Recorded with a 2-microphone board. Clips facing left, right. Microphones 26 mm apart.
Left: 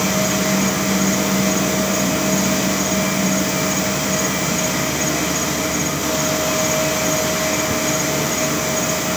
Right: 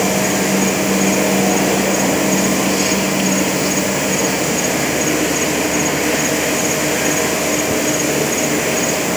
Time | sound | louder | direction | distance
0.0 | an insect | right 3 dB | 75° right (ahead or behind) | ?